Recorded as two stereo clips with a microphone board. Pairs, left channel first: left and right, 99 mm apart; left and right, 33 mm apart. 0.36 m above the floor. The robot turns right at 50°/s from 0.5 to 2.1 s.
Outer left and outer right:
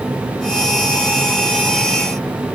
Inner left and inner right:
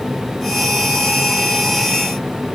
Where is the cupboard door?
I don't hear a cupboard door.